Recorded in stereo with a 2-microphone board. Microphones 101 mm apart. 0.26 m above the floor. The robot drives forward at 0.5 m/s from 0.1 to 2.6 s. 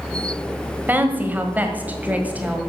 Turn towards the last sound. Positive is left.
turn(degrees=-15)  # may be behind; listen again after turning